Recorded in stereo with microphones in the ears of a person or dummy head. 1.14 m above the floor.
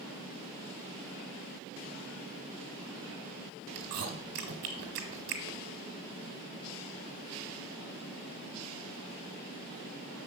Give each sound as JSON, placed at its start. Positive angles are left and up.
{"t": 3.8, "sound": "chewing", "side_deg": -50, "distance_m": 1.5}